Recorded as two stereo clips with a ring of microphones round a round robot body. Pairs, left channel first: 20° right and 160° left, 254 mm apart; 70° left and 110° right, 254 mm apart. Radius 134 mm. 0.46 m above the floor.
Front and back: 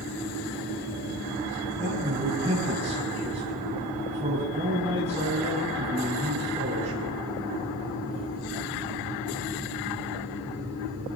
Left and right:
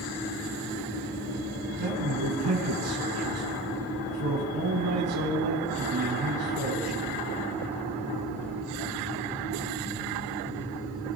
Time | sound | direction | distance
1.8 | a man speaking | 135° right | 3.5 m